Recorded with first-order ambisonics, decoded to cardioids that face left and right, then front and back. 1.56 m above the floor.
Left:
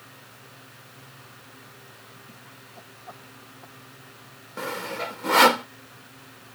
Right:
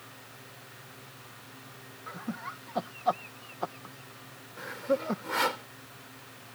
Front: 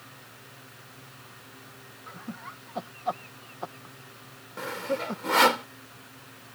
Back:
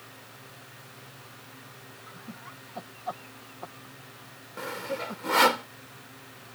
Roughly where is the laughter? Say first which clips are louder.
Right 8 dB, front 5 dB; right.